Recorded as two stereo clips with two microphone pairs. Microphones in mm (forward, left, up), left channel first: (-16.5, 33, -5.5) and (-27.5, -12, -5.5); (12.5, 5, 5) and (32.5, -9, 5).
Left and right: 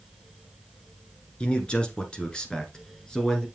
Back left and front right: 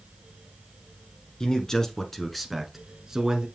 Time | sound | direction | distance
1.4 | a man speaking | 120° left | 1.6 m